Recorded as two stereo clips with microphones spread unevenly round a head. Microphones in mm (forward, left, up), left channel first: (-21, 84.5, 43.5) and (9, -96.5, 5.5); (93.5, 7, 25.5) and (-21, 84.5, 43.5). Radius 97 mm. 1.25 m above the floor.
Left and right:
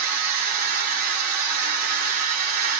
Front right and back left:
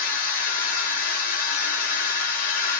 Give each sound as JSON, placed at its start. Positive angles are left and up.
{"t": 0.0, "sound": "a machine running", "azimuth_deg": -35, "distance_m": 1.4}